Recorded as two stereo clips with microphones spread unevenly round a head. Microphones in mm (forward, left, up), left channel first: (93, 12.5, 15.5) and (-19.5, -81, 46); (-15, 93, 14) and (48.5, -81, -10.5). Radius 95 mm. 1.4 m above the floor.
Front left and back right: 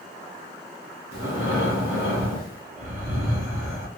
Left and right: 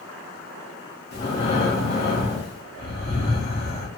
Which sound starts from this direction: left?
Breathing, at 1.1 s.